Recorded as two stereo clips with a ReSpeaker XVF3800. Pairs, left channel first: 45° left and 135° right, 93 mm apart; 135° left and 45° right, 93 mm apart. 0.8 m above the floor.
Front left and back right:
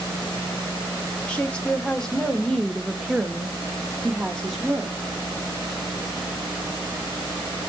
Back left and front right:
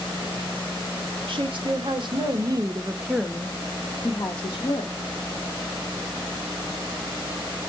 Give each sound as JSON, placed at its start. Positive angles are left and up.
{"t": 1.3, "sound": "a woman speaking", "azimuth_deg": -35, "distance_m": 1.1}